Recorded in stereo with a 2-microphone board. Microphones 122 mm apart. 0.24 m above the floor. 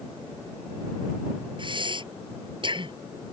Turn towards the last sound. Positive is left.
turn(degrees=-40)  # may be behind; listen again after turning